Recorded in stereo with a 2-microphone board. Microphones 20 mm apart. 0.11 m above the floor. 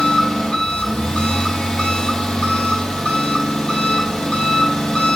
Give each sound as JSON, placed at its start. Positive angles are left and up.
{"t": 0.0, "sound": "an engine running", "side_deg": 70, "distance_m": 1.8}